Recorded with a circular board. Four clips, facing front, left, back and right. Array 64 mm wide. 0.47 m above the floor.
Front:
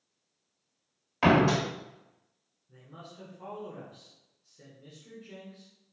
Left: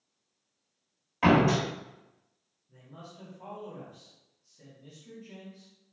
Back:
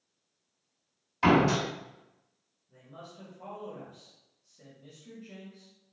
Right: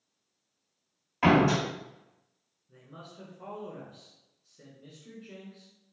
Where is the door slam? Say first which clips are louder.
Even, even; 5° right, 1.6 m.